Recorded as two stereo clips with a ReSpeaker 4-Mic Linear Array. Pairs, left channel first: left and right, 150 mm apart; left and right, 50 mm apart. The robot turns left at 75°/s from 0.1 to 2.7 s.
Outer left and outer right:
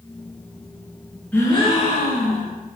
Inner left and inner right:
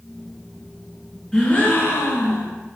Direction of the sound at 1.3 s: 170° left.